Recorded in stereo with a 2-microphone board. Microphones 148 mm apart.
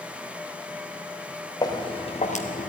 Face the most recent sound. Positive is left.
turn(degrees=65)  # may be behind; listen again after turning